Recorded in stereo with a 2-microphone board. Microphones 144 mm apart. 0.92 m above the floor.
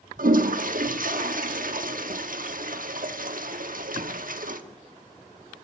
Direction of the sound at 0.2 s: 65° right (ahead or behind).